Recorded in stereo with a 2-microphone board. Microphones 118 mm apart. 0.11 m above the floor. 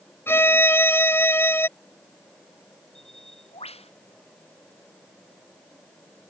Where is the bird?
60° left (ahead or behind).